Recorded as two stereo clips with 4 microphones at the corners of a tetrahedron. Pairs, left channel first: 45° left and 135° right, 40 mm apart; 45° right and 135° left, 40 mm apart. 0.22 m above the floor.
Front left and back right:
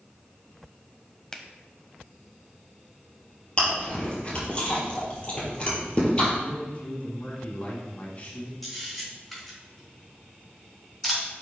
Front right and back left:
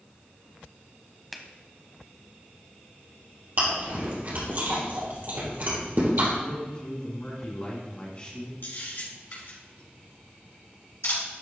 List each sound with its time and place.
1.3 s a finger snap: 40° left, 0.7 m
3.6 s chewing: 105° left, 3 m
6.4 s a man speaking: 5° left, 1.9 m
8.6 s a camera shutter: 45° right, 3 m